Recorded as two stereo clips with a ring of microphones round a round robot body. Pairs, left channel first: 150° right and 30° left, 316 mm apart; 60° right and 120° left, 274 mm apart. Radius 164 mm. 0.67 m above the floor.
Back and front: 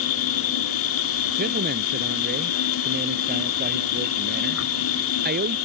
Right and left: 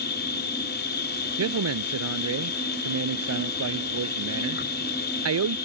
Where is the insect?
110° right.